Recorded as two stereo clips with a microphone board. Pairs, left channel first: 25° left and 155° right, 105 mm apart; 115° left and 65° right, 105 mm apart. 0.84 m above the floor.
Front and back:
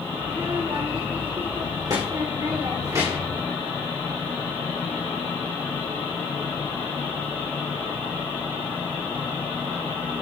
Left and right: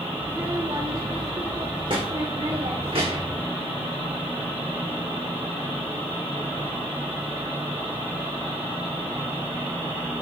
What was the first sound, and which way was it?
A child speaking, 110° right.